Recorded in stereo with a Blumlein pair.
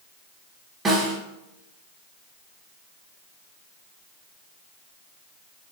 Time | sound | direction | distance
0.8 | a snare drum | 15° right | 0.9 m